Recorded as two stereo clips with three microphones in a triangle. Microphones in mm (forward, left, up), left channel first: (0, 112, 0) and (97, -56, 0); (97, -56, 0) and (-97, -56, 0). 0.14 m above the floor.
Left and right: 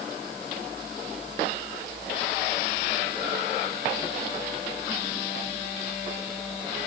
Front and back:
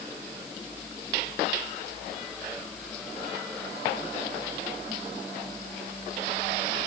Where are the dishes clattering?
No dishes clattering in this recording.